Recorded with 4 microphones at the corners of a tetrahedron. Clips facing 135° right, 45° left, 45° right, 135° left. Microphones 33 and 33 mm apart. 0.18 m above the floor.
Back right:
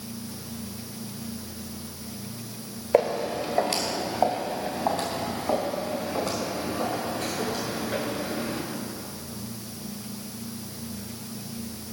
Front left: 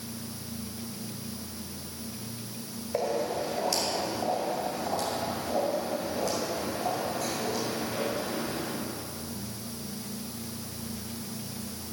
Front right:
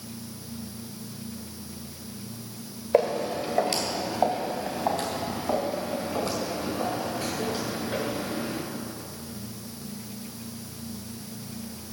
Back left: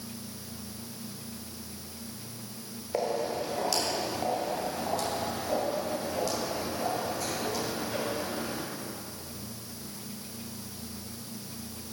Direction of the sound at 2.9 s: 105° right.